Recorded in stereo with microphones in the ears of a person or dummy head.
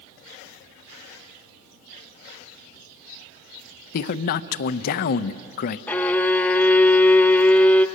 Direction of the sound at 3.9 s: 55° left (ahead or behind).